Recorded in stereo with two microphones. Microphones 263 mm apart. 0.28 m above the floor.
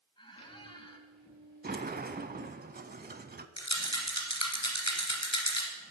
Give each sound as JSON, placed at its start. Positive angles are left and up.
{"t": 0.2, "sound": "a squeak", "side_deg": 20, "distance_m": 1.0}
{"t": 1.6, "sound": "a sliding door", "side_deg": -35, "distance_m": 0.5}
{"t": 3.6, "sound": "a rattle", "side_deg": 75, "distance_m": 1.9}